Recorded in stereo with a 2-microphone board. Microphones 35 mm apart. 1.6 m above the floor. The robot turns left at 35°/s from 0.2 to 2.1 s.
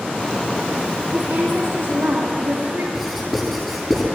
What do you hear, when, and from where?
1.1 s a woman speaking: 60° right, 2.5 m; by 2.8 s 95° right, 2.5 m
2.9 s writing: centre (ahead or behind), 9 m